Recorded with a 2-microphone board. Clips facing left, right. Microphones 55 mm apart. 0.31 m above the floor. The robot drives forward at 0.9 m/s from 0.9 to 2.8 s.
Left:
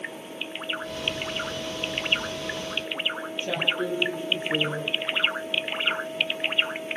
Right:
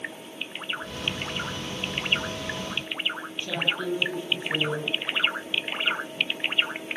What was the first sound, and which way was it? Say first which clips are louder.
A woman speaking: left 1 dB; 30° left (ahead or behind).